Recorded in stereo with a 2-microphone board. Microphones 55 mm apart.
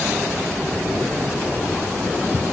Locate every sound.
Only background noise.